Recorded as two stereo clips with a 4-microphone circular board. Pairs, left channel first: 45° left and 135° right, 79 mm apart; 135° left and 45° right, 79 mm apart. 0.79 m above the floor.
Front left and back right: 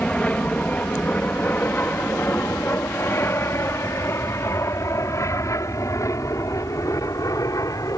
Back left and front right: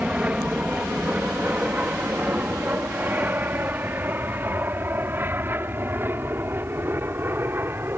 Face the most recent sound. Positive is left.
turn(degrees=10)